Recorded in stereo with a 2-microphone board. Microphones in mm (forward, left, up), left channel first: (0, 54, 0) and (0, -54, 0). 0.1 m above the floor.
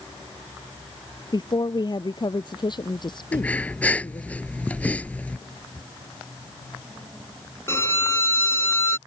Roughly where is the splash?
I don't hear a splash.